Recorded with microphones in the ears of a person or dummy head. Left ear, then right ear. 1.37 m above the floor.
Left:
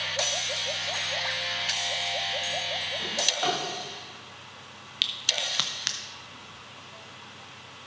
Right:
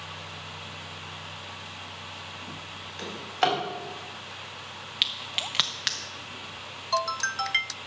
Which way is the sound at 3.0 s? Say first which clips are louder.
Right 1 dB; 25° right (ahead or behind).